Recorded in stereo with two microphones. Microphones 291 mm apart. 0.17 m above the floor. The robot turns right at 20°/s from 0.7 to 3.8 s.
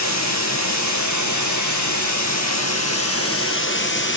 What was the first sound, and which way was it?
Running water, 75° left.